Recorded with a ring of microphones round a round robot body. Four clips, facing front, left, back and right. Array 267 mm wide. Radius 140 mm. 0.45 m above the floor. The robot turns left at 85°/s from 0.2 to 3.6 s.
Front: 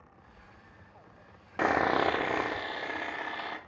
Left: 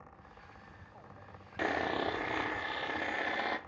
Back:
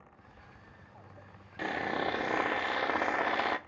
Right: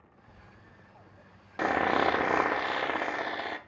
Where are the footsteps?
95° right, 1.8 m; by 2.6 s 40° left, 2.5 m.